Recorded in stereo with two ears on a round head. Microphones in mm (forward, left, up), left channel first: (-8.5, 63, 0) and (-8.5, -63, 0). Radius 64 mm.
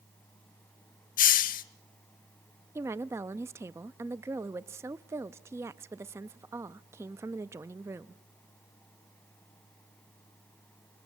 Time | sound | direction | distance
1.2 | a hiss | 65° left (ahead or behind) | 0.9 m
2.8 | a woman speaking | 20° right (ahead or behind) | 0.6 m